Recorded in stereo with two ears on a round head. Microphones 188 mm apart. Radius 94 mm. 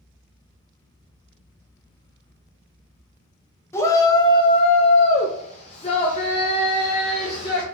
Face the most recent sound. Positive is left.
turn(degrees=20)  # may be behind; listen again after turning